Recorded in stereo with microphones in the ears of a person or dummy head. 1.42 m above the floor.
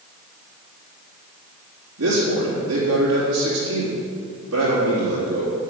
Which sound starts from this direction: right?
A man speaking, at 2.0 s.